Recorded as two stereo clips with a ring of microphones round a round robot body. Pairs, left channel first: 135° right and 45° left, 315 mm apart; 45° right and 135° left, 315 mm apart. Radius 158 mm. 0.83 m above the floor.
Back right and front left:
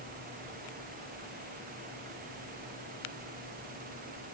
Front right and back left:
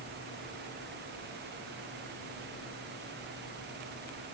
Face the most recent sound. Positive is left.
No sound to turn to.